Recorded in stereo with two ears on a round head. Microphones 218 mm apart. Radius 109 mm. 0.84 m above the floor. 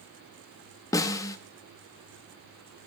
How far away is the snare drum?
About 0.6 m.